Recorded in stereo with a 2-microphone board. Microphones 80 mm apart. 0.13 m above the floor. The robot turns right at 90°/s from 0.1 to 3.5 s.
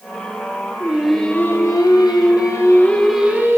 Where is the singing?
30° right, 1.2 m; by 3.6 s 145° right, 1.2 m.